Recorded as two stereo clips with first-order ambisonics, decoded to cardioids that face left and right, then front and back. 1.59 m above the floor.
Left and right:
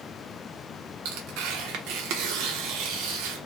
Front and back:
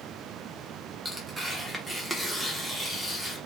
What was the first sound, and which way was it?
Tearing paper, 95° right.